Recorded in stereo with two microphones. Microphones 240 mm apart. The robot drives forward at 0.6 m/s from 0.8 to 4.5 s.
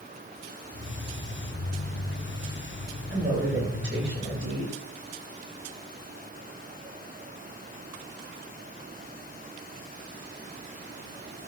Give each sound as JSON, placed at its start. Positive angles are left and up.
{"t": 3.1, "sound": "a woman speaking", "side_deg": -50, "distance_m": 8.5}